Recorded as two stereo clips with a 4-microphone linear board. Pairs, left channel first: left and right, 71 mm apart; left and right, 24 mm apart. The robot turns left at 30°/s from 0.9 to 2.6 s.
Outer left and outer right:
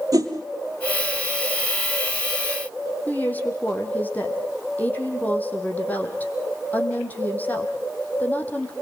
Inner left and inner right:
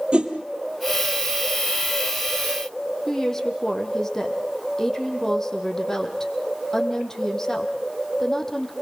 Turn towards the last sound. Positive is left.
turn(degrees=25)  # may be behind; listen again after turning